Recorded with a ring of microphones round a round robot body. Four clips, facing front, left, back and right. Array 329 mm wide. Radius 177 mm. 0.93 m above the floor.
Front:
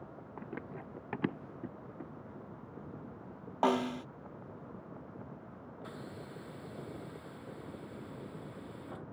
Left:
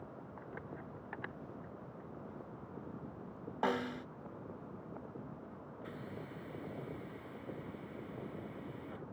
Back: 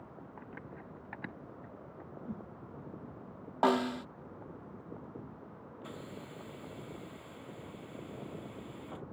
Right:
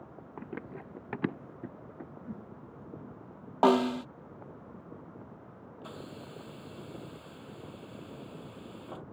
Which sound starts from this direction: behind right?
A whoosh, at 2.2 s.